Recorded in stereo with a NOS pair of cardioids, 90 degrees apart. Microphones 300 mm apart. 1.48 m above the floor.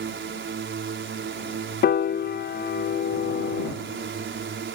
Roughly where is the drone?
Ahead right.